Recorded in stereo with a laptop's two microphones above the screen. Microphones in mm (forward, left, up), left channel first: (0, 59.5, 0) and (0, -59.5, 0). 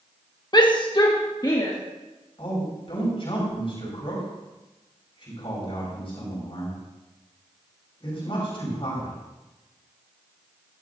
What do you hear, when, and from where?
0.5 s a shout: 35° left (ahead or behind), 1.0 m
2.4 s a man speaking: 50° left (ahead or behind), 5 m